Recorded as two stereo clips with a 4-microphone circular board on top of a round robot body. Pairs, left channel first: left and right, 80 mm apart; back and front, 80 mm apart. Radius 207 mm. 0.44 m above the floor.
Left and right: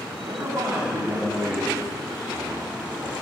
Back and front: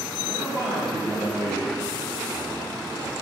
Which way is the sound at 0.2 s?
50° right.